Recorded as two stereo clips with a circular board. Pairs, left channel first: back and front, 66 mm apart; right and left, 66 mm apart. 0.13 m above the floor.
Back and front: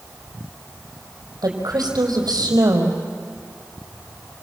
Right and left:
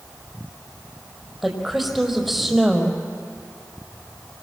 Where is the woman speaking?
Straight ahead, 5 m.